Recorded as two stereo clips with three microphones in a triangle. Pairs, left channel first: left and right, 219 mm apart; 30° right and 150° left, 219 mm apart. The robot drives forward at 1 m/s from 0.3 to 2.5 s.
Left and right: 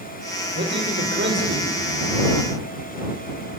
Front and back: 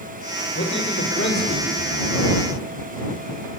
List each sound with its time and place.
0.6 s a man speaking: 55° right, 6.5 m; by 2.1 s 70° right, 6 m